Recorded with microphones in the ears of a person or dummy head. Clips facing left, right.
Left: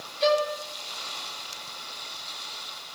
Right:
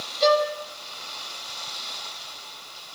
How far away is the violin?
About 6 m.